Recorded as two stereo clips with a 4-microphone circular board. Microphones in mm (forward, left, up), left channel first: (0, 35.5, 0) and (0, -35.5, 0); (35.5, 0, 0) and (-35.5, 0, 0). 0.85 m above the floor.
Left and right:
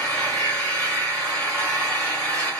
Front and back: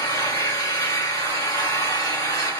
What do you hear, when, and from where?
0.0 s an engine running: 15° left, 1.8 m